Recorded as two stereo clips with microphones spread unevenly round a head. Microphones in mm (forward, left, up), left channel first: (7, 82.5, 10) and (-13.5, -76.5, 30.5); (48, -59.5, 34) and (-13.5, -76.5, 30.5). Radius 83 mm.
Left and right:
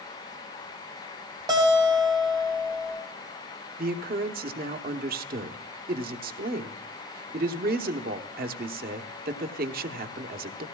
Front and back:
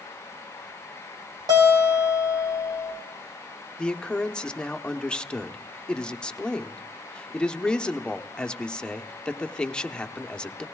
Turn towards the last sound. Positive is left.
turn(degrees=-60)